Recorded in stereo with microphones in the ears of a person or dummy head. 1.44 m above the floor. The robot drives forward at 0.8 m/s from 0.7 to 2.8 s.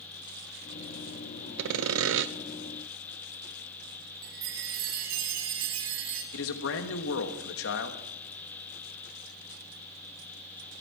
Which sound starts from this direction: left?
A man speaking, at 6.3 s.